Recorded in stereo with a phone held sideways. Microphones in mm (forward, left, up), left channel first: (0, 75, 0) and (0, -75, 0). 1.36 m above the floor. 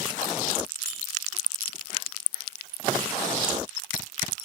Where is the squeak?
60° left (ahead or behind), 2.5 m.